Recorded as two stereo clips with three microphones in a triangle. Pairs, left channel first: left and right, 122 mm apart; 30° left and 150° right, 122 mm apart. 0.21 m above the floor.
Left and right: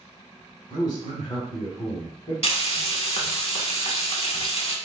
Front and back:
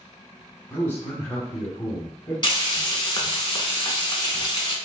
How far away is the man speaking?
About 1.1 m.